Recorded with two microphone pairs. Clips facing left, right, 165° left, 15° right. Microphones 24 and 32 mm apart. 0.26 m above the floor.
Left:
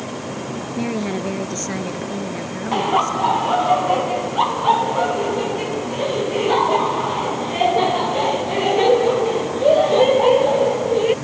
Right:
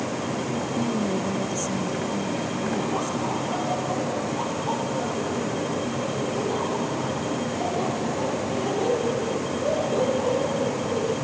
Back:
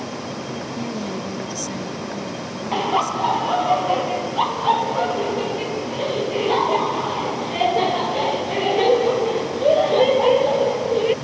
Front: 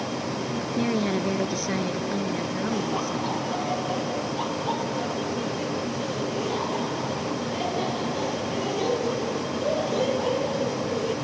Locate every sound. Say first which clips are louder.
0.8 s a woman speaking: left 4 dB, front 5 dB; 45° left
2.7 s laughter: left 13 dB, back 6 dB; 115° left